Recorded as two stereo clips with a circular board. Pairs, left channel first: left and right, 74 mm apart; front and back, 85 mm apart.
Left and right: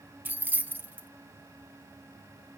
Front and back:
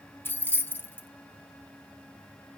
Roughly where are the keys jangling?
Ahead right.